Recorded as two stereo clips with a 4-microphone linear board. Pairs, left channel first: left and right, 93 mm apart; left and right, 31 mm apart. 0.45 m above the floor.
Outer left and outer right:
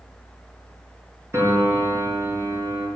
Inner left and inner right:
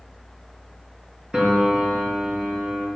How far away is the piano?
About 5 m.